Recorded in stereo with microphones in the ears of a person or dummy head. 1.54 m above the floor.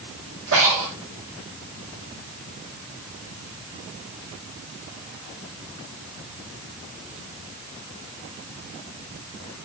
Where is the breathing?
80° right, 2.5 m.